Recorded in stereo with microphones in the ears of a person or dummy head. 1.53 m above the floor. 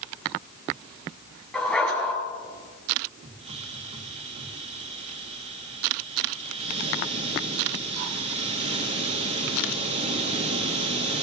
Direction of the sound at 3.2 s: 35° right (ahead or behind).